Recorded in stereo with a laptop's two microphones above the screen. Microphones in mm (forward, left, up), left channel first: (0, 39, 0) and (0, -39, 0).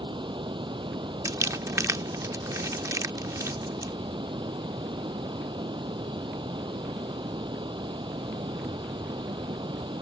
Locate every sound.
0.0 s running water: 85° right
1.2 s crumpling: 45° right (ahead or behind)